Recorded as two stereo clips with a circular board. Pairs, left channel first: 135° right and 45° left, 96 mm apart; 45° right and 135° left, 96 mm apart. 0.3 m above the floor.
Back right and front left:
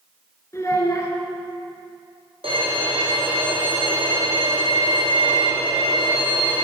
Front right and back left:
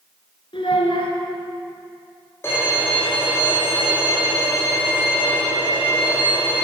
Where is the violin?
20° left, 2.5 m.